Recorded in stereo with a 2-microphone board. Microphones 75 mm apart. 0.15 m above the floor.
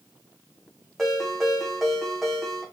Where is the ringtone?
5° left (ahead or behind), 4 m.